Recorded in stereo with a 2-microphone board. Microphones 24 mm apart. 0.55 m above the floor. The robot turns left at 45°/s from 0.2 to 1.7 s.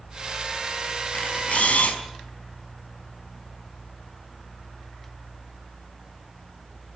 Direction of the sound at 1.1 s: 65° left (ahead or behind).